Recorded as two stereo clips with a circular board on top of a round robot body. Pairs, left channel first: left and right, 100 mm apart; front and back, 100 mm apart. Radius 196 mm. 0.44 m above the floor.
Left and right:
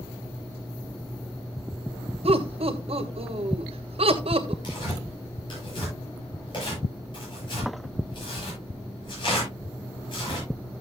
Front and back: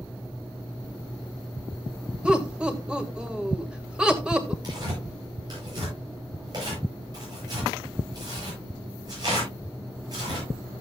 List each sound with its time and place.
2.2 s laughter: 100° right, 2.5 m
4.6 s tearing paper: 130° left, 9 m